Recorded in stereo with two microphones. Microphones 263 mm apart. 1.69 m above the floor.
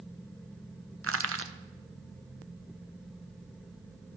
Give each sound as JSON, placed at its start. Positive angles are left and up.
{"t": 1.0, "sound": "crushing", "side_deg": -55, "distance_m": 0.7}